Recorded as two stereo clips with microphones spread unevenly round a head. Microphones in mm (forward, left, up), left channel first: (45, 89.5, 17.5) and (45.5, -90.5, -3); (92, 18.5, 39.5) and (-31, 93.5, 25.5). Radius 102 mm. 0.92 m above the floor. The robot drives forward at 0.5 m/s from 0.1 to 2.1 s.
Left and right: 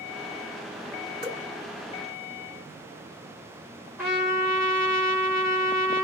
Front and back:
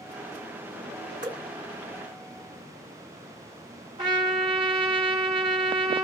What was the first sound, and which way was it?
Dripping, 155° right.